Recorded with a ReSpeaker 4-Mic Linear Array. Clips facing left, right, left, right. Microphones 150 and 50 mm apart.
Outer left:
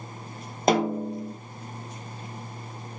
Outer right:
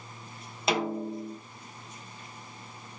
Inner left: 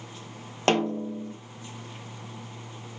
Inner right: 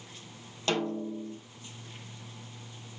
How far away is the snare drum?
About 0.5 m.